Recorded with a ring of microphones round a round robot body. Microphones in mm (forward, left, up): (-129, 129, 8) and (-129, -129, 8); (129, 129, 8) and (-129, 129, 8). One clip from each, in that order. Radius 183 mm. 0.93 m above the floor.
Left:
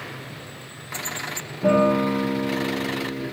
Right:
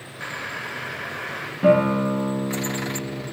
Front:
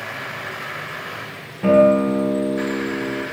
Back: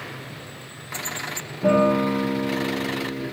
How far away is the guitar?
About 1.9 m.